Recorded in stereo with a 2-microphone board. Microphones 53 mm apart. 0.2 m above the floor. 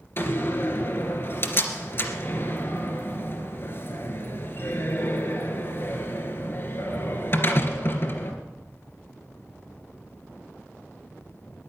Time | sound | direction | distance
0.2 | a door slam | 45° left (ahead or behind) | 2.5 m